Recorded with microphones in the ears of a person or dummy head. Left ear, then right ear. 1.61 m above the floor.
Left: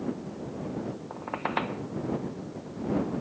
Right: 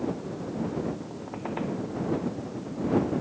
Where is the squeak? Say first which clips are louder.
Left 4 dB; 60° left (ahead or behind).